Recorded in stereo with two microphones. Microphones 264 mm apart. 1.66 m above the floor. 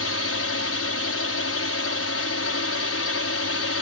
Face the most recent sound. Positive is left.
turn(degrees=60)  # may be behind; listen again after turning